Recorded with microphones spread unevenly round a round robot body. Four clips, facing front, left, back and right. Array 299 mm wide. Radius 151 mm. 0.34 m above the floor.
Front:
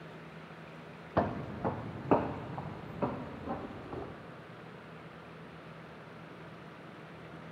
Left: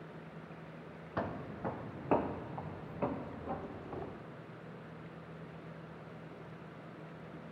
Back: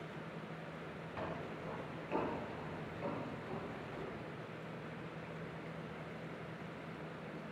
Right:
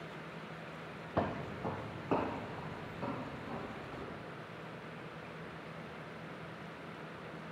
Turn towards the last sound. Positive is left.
turn(degrees=20)